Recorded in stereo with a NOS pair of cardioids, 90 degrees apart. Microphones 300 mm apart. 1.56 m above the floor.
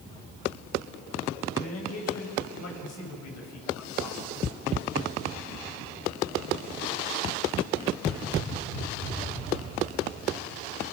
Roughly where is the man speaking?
Ahead left.